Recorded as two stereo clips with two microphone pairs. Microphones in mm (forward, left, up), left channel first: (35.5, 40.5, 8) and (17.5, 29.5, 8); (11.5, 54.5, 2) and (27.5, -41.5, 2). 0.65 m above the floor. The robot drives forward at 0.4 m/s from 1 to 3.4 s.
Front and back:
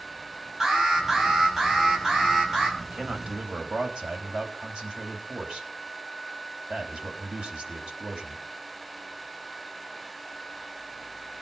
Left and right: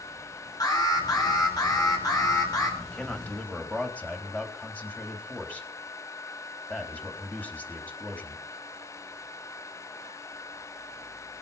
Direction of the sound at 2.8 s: 175° left.